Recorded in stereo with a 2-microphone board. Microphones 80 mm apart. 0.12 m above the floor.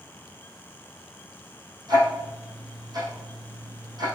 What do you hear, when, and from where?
1.9 s ticking: 60° right (ahead or behind), 5 m